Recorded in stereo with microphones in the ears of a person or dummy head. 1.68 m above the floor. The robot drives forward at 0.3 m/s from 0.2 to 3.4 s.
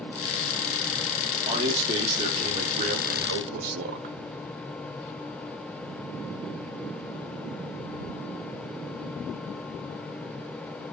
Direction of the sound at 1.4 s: 35° right (ahead or behind).